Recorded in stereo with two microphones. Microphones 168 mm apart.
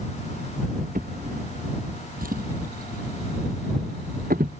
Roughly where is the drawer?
Right.